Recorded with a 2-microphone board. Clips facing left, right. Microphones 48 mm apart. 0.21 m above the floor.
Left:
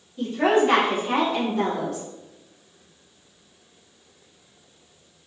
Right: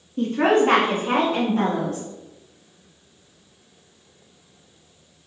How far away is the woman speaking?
About 1.7 m.